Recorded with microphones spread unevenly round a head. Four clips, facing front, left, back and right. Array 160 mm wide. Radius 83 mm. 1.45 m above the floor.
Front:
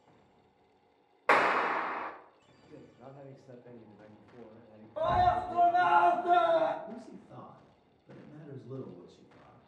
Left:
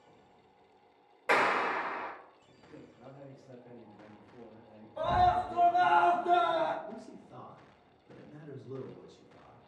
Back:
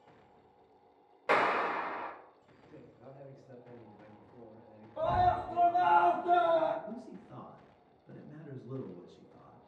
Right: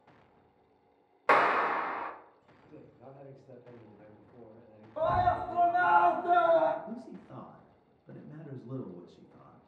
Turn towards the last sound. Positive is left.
turn(degrees=-80)